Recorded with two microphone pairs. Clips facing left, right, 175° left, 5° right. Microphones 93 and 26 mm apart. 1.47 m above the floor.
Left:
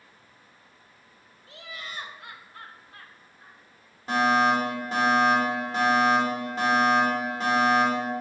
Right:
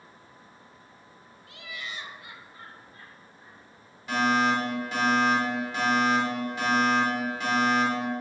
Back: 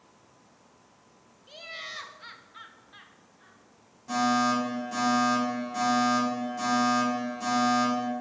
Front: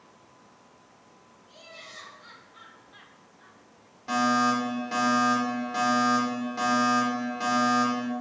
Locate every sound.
1.5 s laughter: 145° left, 1.2 m; by 3.6 s 75° left, 1.2 m
4.1 s a fire alarm: 35° left, 3 m